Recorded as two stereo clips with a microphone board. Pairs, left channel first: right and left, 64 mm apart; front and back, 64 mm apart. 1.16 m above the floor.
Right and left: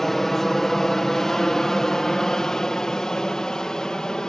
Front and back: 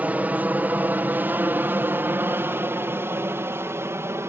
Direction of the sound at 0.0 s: 170° right.